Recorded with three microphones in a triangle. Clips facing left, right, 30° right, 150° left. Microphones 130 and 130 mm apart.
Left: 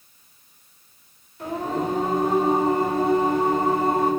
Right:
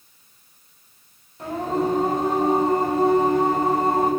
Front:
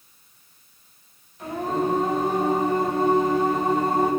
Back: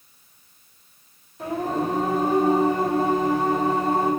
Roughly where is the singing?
Behind right.